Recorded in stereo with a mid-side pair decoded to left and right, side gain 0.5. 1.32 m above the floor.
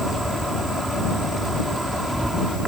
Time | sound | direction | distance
0.0 | an insect | 10° right | ?